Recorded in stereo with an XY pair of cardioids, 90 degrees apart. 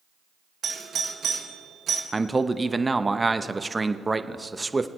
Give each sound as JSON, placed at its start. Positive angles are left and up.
{"t": 0.6, "sound": "a doorbell", "azimuth_deg": -60, "distance_m": 1.7}
{"t": 2.1, "sound": "a man speaking", "azimuth_deg": -20, "distance_m": 0.7}